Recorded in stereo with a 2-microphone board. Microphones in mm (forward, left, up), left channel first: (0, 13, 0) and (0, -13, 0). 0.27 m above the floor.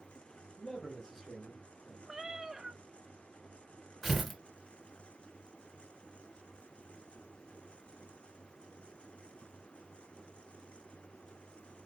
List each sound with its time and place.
0.6 s a man speaking: 30° left (ahead or behind), 1.6 m; by 2.0 s 25° right (ahead or behind), 1.6 m
2.1 s a cat meowing: 15° right (ahead or behind), 0.6 m
4.0 s tearing paper: 5° right (ahead or behind), 1.6 m